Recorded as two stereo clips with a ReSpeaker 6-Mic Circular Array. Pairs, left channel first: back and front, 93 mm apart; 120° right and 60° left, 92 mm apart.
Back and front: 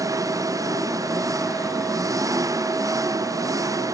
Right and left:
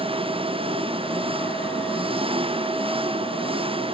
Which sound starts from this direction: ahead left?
An engine running, at 0.0 s.